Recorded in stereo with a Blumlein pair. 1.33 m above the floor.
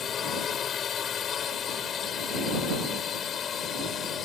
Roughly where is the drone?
Ahead left.